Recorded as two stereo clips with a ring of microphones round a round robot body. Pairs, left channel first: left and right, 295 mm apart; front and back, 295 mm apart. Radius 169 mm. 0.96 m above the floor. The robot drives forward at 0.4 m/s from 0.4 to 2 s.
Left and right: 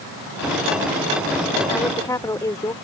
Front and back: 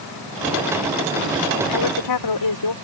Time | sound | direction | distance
1.7 | a woman speaking | 10° left | ?